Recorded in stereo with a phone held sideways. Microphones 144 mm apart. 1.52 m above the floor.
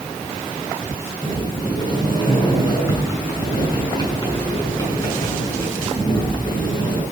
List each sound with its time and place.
1.2 s a sliding door: 30° left (ahead or behind), 9 m